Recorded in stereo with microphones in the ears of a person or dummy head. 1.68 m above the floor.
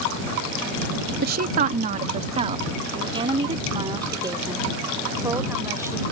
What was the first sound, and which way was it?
A woman speaking, 55° right (ahead or behind).